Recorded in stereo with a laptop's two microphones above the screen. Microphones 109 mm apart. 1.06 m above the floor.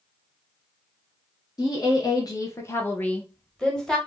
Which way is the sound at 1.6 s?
35° left (ahead or behind).